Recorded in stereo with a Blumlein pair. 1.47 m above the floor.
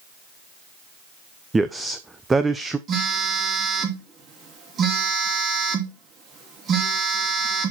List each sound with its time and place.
1.5 s a man speaking: 10° right, 0.7 m
2.9 s a phone buzzing: 25° right, 2.5 m